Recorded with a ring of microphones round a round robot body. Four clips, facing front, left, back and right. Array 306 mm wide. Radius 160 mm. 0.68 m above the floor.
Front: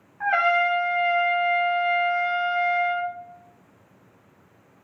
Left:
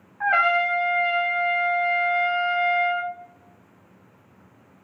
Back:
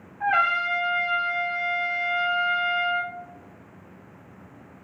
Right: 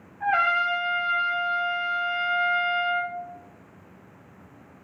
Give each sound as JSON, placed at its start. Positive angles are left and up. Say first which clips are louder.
{"t": 0.2, "sound": "a trumpet", "louder": "left 2 dB, front 2 dB", "azimuth_deg": 75, "distance_m": 1.5}